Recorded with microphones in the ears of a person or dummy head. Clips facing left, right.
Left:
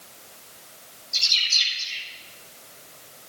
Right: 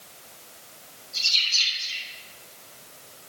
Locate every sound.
1.1 s a bird: 80° left, 7 m